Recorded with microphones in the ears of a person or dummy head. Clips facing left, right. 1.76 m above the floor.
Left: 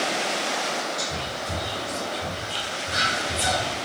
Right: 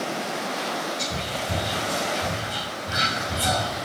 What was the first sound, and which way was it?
Whispering, 55° left (ahead or behind).